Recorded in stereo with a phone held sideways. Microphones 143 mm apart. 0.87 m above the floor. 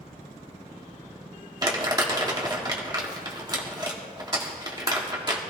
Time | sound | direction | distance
1.6 | crumpling | 25° right (ahead or behind) | 2 m